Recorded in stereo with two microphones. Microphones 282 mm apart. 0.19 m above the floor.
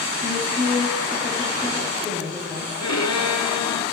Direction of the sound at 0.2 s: 25° left (ahead or behind).